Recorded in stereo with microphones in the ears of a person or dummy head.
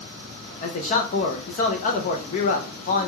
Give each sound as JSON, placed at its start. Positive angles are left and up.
{"t": 0.6, "sound": "a man speaking", "side_deg": 35, "distance_m": 0.8}